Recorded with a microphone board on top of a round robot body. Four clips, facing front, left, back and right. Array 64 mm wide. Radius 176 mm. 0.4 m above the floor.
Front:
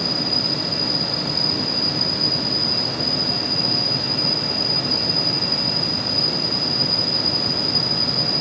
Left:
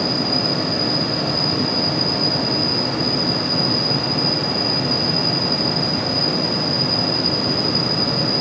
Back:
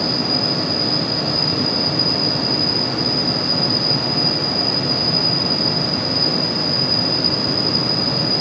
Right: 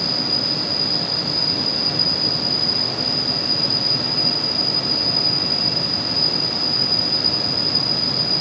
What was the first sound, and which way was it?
An insect, 115° right.